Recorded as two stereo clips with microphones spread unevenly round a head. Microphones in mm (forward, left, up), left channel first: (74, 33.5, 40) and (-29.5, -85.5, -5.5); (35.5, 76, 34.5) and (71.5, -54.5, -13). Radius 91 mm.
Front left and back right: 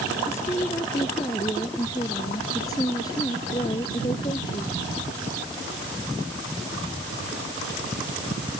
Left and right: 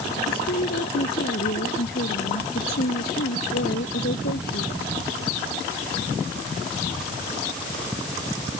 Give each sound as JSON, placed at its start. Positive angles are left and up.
{"t": 0.3, "sound": "a woman speaking", "azimuth_deg": 125}